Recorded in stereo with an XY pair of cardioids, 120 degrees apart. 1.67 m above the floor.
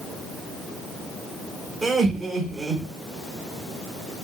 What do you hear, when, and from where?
1.8 s laughter: 30° right, 4 m